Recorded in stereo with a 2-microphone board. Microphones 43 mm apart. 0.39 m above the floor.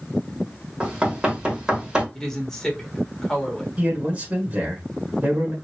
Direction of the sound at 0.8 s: 20° right (ahead or behind).